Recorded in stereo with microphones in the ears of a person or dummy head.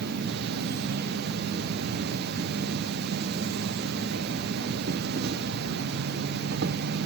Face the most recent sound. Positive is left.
turn(degrees=-60)  # may be behind; listen again after turning